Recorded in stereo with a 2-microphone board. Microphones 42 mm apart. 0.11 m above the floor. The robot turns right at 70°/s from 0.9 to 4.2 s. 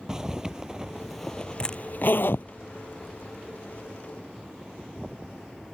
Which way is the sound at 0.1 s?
15° right (ahead or behind).